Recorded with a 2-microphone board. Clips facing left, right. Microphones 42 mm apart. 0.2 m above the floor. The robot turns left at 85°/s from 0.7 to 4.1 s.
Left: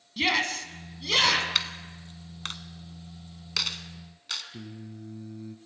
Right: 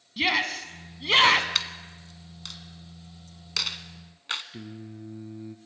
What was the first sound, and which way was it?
A shout, 10° right.